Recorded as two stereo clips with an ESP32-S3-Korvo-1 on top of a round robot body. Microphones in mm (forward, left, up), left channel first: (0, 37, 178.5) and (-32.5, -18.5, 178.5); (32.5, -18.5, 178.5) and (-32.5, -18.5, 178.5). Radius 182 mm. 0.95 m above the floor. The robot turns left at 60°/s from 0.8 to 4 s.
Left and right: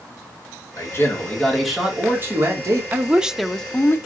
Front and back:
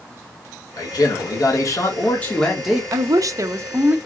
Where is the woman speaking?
Straight behind, 0.8 m; by 4.0 s 115° left, 0.8 m.